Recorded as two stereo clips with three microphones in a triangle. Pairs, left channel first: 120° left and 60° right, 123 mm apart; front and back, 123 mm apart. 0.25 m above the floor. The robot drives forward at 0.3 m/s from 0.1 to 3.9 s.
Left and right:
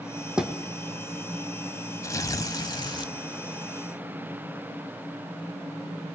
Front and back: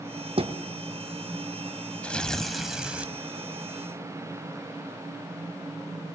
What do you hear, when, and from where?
0.4 s a thud: 145° right, 1.9 m
2.0 s tearing paper: 75° left, 0.8 m; by 3.1 s 110° left, 0.9 m